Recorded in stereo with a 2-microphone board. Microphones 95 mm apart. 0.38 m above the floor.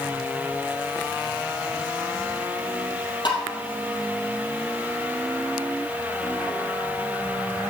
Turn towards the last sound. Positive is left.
turn(degrees=55)  # may be behind; listen again after turning